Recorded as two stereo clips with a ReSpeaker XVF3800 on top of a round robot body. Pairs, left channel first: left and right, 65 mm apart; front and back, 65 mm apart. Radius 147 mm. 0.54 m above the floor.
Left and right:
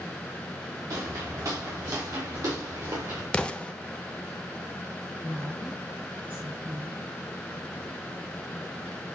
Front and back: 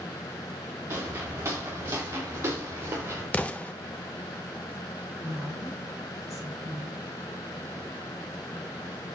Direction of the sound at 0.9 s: 130° right.